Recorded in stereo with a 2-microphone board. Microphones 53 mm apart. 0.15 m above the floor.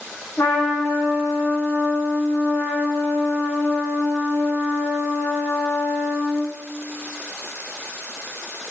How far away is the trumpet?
About 8 m.